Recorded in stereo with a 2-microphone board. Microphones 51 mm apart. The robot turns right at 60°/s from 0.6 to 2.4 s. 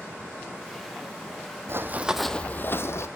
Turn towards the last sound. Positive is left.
turn(degrees=60)  # may be behind; listen again after turning